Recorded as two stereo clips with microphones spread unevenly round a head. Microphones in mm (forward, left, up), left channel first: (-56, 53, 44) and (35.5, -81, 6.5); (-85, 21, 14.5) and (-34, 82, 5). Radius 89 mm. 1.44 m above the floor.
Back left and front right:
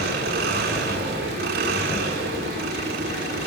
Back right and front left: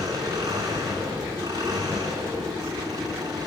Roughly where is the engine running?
Ahead.